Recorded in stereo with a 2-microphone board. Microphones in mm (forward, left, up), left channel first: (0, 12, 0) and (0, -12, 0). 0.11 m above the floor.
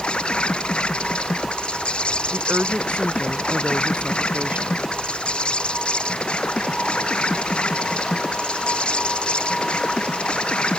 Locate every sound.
0.0 s an insect: 45° left (ahead or behind)
2.3 s a woman speaking: 70° right (ahead or behind)